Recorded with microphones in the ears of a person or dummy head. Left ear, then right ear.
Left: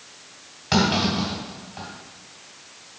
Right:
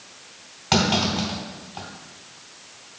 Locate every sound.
0.7 s a clunk: 5° right (ahead or behind), 2 m